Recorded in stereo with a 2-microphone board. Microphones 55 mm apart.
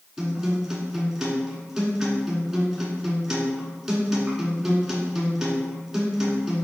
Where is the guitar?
10° right (ahead or behind), 1.1 m.